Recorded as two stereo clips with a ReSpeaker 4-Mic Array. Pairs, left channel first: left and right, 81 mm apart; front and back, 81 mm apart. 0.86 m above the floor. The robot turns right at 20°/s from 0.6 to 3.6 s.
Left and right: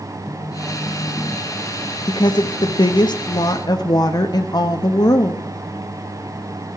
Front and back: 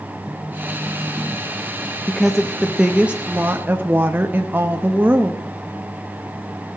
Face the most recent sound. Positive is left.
turn(degrees=115)